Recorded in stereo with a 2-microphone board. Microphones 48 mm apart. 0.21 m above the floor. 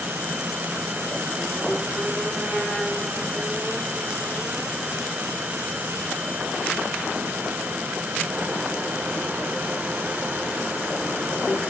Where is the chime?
No chime in this recording.